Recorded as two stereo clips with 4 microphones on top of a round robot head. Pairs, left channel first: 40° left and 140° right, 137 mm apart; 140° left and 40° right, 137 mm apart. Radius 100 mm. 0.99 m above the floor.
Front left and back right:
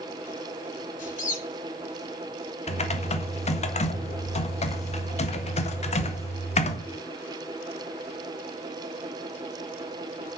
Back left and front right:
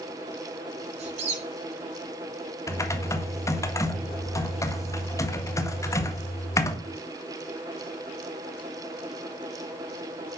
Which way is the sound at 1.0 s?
5° left.